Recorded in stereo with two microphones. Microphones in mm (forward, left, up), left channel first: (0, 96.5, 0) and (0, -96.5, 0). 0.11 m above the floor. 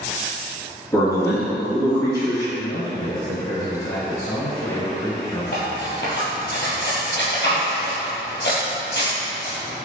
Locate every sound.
0.9 s a man speaking: 15° left (ahead or behind), 1.8 m
2.5 s a man speaking: 15° left (ahead or behind), 1.4 m
5.5 s cutlery clinking: 65° left (ahead or behind), 1.6 m